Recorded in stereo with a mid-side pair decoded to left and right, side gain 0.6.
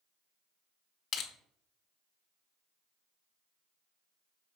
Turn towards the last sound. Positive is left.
turn(degrees=55)